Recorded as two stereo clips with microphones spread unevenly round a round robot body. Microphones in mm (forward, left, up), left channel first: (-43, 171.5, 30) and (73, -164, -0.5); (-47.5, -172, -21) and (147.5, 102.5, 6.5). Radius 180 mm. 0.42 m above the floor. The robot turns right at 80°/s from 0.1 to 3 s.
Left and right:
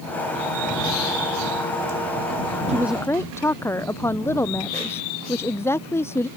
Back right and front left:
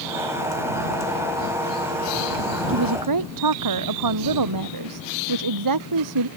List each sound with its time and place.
2.7 s a woman speaking: straight ahead; by 6.3 s 25° left